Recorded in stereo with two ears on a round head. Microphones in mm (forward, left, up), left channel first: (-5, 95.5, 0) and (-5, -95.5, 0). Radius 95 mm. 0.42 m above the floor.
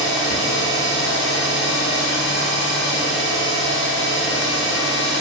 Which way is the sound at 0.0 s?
60° right (ahead or behind).